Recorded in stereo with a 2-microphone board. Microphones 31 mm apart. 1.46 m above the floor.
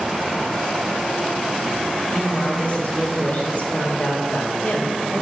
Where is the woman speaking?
55° left (ahead or behind), 2.5 m.